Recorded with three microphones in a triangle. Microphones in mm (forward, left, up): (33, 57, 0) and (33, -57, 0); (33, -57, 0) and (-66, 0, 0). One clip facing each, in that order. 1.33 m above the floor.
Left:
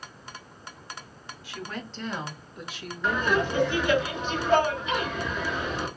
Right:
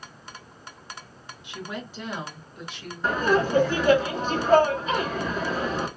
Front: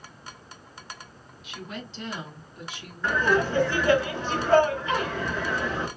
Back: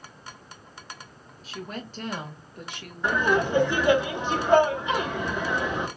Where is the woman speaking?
160° right, 1.5 m; by 4.0 s 160° left, 2.5 m.